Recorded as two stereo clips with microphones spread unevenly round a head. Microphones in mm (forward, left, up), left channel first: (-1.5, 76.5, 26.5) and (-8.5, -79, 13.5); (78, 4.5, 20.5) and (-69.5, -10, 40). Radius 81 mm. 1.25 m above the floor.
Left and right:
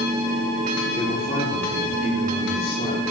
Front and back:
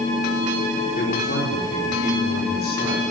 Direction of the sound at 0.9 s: 30° left.